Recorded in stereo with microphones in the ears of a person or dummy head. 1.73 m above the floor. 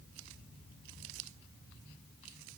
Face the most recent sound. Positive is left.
No sound to turn to.